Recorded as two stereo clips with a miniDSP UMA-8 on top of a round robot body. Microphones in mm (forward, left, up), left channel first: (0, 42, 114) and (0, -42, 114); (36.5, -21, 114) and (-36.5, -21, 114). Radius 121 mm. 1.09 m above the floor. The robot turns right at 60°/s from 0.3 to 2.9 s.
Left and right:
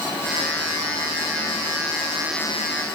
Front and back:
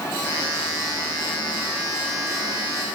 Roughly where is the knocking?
No knocking in this recording.